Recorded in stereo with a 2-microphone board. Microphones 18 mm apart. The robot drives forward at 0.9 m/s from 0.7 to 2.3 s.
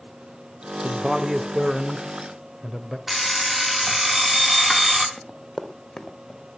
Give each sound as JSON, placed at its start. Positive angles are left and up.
{"t": 0.8, "sound": "a man speaking", "side_deg": -35, "distance_m": 1.0}
{"t": 3.1, "sound": "an alarm clock", "side_deg": -20, "distance_m": 2.5}
{"t": 5.2, "sound": "running footsteps", "side_deg": 15, "distance_m": 3.5}